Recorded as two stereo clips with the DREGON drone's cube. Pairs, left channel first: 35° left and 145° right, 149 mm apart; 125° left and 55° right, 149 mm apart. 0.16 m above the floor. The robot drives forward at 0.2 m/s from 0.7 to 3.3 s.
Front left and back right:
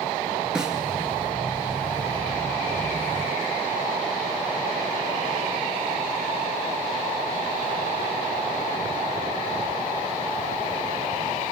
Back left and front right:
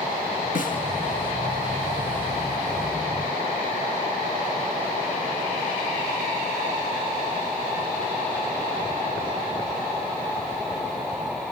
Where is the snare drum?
130° left, 2.5 m.